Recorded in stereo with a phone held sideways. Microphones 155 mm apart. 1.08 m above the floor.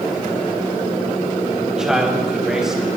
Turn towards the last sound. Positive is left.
turn(degrees=-5)  # may be behind; listen again after turning